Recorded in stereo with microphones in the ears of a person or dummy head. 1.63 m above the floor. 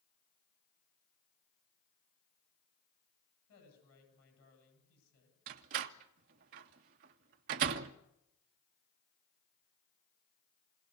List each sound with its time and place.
3.5 s a woman speaking: 85° left, 10 m
5.5 s a door slam: 40° right (ahead or behind), 0.7 m